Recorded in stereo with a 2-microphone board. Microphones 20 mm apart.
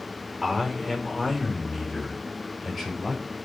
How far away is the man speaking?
About 5 m.